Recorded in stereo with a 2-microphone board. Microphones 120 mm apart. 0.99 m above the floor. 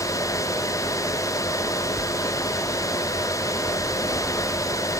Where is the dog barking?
No dog barking in this recording.